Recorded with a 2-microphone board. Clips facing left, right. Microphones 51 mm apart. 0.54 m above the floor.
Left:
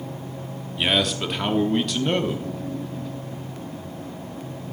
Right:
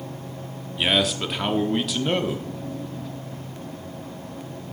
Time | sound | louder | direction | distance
0.8 | a man speaking | even | centre (ahead or behind) | 0.9 m